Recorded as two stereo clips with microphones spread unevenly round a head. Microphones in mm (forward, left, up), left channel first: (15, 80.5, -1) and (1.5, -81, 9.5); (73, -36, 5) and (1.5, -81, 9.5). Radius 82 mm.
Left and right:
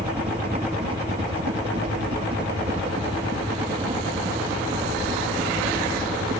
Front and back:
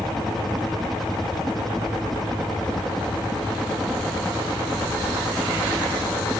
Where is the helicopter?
55° right.